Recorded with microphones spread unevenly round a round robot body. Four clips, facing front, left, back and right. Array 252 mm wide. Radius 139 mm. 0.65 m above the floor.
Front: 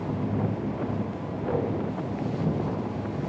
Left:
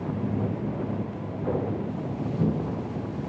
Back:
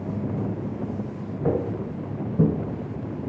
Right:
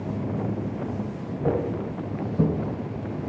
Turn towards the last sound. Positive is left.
turn(degrees=-135)